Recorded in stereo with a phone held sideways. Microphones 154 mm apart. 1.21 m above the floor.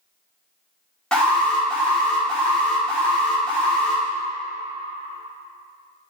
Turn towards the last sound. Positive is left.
turn(degrees=5)  # may be behind; listen again after turning